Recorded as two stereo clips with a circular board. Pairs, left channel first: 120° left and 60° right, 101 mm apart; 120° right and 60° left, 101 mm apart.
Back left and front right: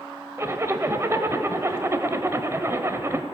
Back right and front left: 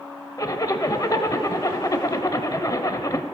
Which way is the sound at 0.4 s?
100° right.